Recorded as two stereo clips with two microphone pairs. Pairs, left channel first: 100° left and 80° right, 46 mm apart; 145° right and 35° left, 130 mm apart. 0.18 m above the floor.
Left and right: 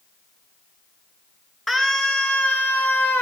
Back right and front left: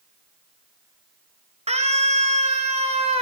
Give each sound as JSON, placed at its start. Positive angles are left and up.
{"t": 1.7, "sound": "a scream", "azimuth_deg": 15, "distance_m": 2.5}